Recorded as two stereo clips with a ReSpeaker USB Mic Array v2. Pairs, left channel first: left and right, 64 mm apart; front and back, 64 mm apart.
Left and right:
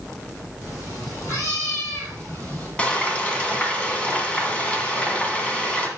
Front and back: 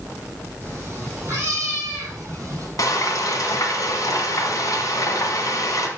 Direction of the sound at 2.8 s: 20° left.